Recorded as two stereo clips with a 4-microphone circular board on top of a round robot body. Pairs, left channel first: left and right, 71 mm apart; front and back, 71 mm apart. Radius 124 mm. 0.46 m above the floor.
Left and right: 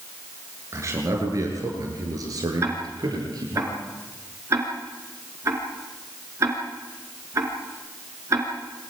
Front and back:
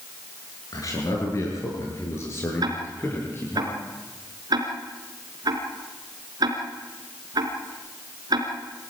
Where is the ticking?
145° right, 4 m.